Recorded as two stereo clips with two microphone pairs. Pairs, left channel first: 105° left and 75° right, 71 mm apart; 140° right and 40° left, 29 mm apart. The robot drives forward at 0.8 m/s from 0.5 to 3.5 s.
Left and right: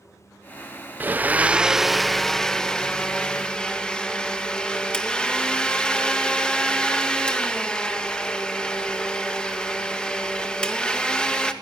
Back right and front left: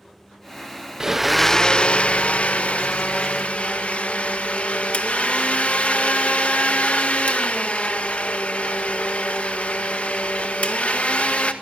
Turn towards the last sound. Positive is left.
turn(degrees=-175)